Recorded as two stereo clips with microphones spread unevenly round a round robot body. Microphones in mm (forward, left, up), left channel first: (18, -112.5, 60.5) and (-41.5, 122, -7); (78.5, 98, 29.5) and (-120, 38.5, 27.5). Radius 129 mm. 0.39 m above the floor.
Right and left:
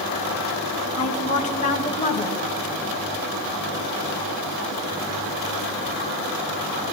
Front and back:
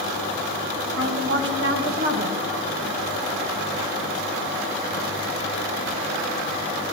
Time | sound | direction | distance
1.0 | a woman speaking | 140° right | 2.5 m